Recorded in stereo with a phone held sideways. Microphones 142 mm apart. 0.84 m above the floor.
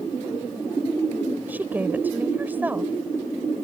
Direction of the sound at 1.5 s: 15° right (ahead or behind).